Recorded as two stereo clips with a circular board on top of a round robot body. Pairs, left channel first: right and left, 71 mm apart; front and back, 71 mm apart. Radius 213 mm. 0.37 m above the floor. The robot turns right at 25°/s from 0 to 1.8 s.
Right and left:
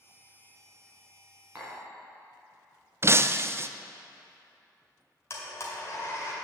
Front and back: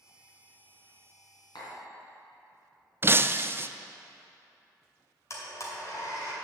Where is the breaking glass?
130° left, 0.5 m.